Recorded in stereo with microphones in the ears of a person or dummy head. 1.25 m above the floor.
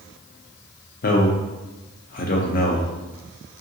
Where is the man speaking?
40° left (ahead or behind), 0.5 m.